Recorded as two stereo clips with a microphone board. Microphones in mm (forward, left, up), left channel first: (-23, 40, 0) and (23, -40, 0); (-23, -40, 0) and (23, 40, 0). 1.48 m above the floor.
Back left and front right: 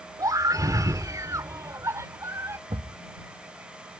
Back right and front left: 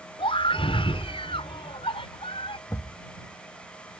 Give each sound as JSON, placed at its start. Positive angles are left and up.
{"t": 0.2, "sound": "a scream", "azimuth_deg": -110}
{"t": 2.7, "sound": "a thud", "azimuth_deg": -65}